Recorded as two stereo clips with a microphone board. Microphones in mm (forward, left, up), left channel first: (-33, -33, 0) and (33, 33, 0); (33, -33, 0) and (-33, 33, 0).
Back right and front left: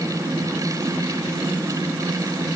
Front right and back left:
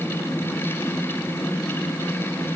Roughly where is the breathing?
No breathing in this recording.